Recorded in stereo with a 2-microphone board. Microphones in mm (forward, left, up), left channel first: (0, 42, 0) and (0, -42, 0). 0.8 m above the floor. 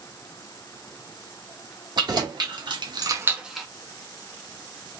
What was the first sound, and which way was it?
Keys jangling, 60° right (ahead or behind).